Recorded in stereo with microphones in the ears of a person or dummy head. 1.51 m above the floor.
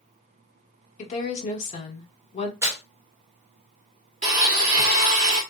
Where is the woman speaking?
40° left (ahead or behind), 1.2 m.